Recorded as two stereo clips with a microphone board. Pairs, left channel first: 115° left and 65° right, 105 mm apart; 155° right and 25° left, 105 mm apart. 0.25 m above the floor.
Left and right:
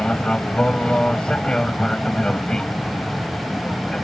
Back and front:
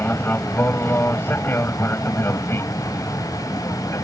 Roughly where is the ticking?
I don't hear ticking.